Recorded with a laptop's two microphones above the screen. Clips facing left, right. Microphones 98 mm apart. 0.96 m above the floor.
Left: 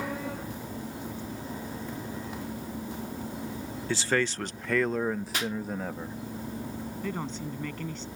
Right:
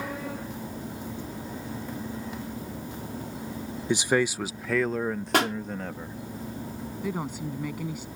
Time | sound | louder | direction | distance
3.9 | a man speaking | right 4 dB | 20° right (ahead or behind) | ?
5.3 | a pop | right 8 dB | 70° right (ahead or behind) | ?
7.0 | a woman speaking | right 4 dB | 10° right (ahead or behind) | ?